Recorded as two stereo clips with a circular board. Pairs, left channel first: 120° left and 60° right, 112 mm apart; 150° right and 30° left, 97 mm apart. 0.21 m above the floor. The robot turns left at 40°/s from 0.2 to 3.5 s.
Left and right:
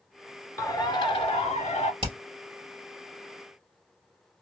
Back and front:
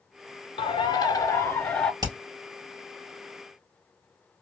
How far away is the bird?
About 0.6 m.